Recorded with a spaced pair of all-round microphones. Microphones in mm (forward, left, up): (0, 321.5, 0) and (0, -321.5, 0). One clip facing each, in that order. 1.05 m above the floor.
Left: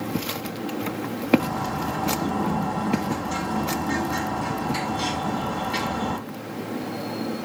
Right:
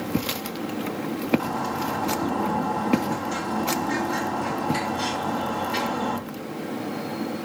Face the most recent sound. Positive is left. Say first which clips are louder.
# even
turn(degrees=60)  # may be behind; listen again after turning